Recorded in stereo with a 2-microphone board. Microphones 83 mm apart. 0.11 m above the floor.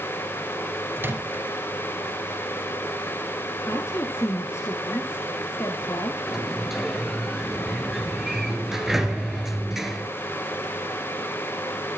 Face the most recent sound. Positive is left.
turn(degrees=-5)  # may be behind; listen again after turning